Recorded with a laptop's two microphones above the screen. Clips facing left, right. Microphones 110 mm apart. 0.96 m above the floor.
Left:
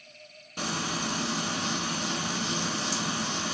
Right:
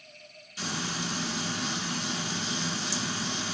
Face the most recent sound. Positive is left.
turn(degrees=60)  # may be behind; listen again after turning